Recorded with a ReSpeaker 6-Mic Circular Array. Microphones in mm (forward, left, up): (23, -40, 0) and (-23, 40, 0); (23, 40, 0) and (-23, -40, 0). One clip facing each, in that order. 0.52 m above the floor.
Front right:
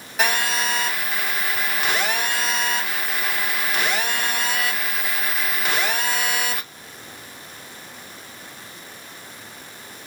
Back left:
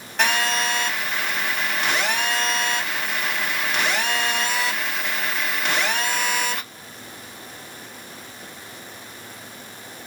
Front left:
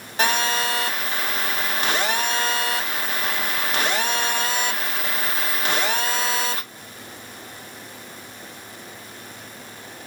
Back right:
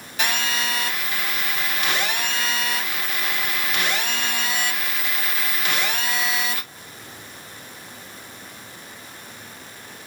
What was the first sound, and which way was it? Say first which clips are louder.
A phone buzzing: back left 1 dB, front left 4 dB; 25° left.